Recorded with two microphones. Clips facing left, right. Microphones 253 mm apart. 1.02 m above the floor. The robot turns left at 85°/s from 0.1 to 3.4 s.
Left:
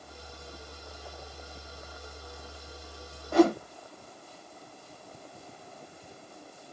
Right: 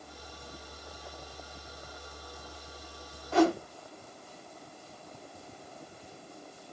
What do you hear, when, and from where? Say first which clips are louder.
3.3 s a whoosh: left 3 dB; 55° left (ahead or behind), 1.8 m; by 3.6 s 60° left (ahead or behind), 1.8 m